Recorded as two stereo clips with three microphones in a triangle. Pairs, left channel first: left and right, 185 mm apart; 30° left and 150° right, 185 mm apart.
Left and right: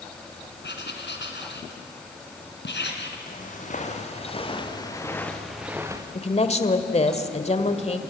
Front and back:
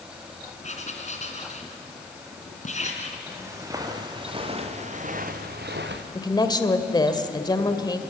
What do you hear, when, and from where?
0.6 s writing: 80° left, 3 m
3.3 s footsteps: 135° left, 4.5 m; by 6.0 s 160° right, 2.5 m
6.2 s a woman speaking: 80° left, 1.6 m